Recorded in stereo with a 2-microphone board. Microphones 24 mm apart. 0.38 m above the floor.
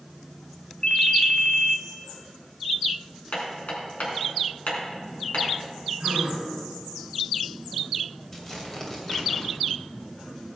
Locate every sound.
0.8 s a ringtone: 45° left (ahead or behind), 0.8 m
3.3 s hammering: 65° left (ahead or behind), 3 m
6.0 s a gasp: 60° right (ahead or behind), 3 m
8.3 s tearing paper: 20° left (ahead or behind), 2.5 m